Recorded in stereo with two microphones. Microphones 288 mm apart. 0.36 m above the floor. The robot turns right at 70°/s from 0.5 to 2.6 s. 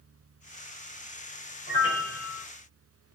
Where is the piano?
50° left, 1.1 m; by 2.5 s 105° left, 1.1 m.